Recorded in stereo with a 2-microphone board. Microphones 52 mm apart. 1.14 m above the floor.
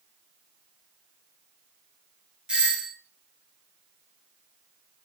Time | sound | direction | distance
2.5 | a doorbell | 20° right (ahead or behind) | 0.6 m